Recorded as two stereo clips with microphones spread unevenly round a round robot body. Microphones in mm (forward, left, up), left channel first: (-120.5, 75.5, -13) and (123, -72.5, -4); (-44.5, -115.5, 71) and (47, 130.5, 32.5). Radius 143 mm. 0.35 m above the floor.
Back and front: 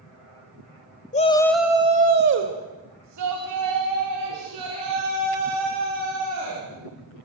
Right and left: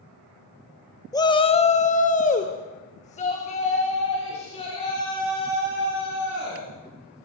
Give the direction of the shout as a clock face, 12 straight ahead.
6 o'clock.